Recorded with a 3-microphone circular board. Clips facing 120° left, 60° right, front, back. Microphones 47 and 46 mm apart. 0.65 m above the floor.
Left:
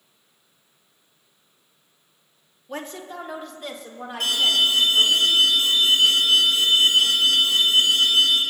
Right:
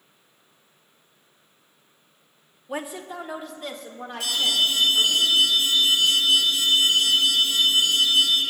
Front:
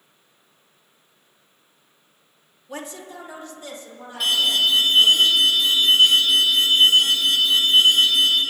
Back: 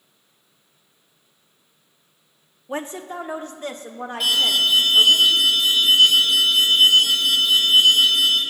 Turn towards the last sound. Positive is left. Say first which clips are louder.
# left 3 dB, even
turn(degrees=90)